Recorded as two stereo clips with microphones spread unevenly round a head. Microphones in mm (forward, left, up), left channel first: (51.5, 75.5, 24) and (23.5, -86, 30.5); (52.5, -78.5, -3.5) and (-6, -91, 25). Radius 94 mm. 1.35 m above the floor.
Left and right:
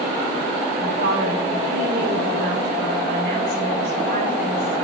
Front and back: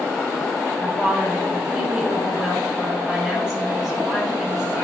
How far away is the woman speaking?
About 2.5 m.